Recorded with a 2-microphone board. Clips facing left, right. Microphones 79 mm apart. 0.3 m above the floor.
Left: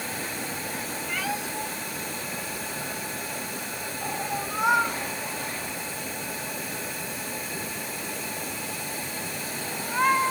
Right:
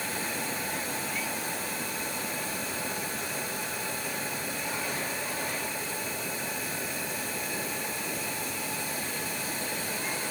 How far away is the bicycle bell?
No bicycle bell in this recording.